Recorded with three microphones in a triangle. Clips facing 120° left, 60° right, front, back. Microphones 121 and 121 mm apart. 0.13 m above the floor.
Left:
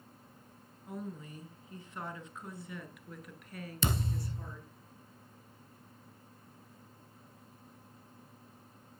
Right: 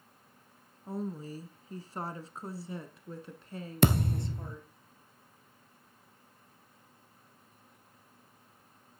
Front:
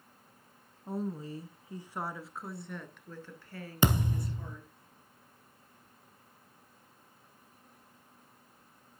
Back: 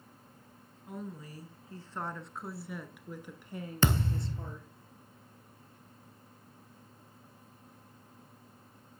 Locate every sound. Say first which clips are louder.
0.9 s a woman speaking: right 6 dB, front 7 dB; 25° right, 1.3 m; by 4.7 s 125° right, 2 m
3.8 s a thud: right 8 dB, front 2 dB; 75° right, 1.0 m